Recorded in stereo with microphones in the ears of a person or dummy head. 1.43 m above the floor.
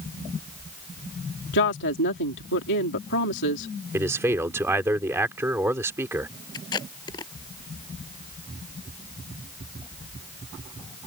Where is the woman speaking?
70° left (ahead or behind).